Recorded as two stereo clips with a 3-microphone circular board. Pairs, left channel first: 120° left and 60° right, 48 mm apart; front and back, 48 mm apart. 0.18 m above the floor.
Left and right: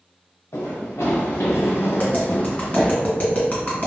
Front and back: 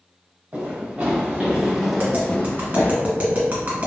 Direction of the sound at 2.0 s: 155° left.